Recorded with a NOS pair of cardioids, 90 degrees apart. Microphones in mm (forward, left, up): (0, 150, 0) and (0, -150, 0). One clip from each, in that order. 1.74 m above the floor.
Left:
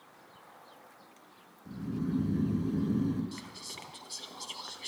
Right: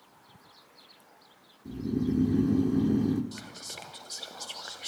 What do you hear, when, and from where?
1.6 s snoring: 55° right, 1.1 m
3.3 s whispering: 20° right, 0.8 m